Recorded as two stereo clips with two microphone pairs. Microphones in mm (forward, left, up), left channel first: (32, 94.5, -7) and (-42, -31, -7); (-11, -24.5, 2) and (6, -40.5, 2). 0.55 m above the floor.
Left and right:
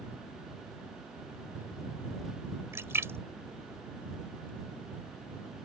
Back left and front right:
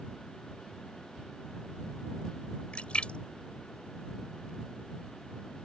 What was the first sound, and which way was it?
A splash, 165° left.